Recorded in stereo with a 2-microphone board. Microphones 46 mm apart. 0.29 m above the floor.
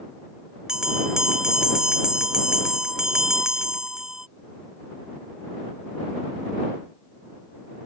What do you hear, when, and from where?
0.7 s a bell: 15° right (ahead or behind)